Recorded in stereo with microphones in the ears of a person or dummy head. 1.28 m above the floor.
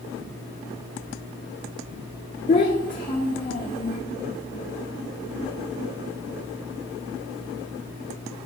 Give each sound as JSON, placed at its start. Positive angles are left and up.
{"t": 2.5, "sound": "a child speaking", "side_deg": 30, "distance_m": 0.5}